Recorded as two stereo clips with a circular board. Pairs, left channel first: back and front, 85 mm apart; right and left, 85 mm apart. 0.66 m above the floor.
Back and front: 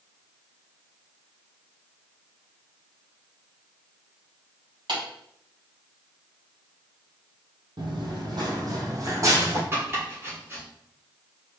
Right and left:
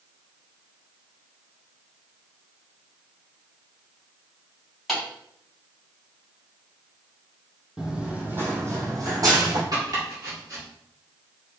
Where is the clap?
5° right, 2.5 m.